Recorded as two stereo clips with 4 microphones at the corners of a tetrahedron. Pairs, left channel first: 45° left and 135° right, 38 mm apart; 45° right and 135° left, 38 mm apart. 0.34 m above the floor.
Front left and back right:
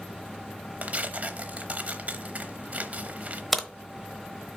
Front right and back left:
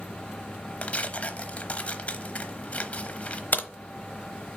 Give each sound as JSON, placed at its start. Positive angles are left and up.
{"t": 0.8, "sound": "tearing paper", "azimuth_deg": -90, "distance_m": 0.8}
{"t": 3.5, "sound": "a crack", "azimuth_deg": -45, "distance_m": 0.9}